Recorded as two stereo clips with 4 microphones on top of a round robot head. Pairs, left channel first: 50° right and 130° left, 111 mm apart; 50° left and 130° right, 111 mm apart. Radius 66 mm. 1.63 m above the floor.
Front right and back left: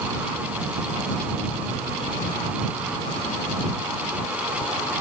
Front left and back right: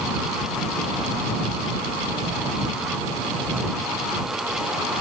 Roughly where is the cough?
I don't hear a cough.